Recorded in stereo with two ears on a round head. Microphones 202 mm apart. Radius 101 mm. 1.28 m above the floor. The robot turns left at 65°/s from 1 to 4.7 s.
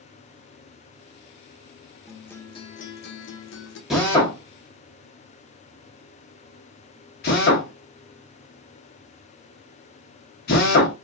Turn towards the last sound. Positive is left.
turn(degrees=45)  # may be behind; listen again after turning